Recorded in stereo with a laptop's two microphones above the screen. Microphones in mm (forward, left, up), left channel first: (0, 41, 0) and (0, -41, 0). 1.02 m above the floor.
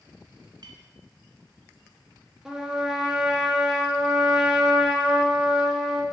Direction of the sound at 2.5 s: 10° right (ahead or behind).